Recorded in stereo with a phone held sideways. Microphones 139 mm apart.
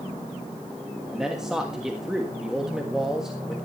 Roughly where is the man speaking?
Centre.